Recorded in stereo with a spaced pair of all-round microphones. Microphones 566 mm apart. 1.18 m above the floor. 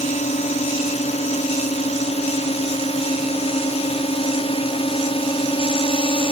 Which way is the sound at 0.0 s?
10° left (ahead or behind).